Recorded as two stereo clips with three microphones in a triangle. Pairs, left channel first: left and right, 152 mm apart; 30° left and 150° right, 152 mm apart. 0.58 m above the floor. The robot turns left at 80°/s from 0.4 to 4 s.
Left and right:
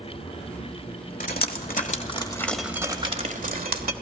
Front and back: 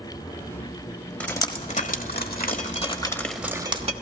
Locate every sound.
1.2 s dripping: 110° left, 1.3 m; by 3.9 s 105° right, 1.3 m